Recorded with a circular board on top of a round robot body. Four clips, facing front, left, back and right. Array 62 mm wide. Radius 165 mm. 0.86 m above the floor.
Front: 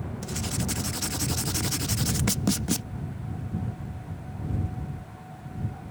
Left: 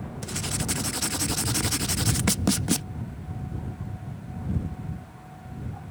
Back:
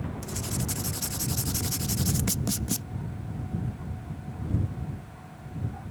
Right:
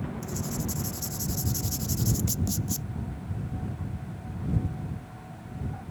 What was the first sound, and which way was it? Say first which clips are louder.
Writing: left 1 dB, front 2 dB; 70° left.